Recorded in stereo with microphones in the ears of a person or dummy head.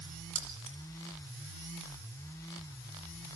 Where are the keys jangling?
35° right (ahead or behind), 2.5 m.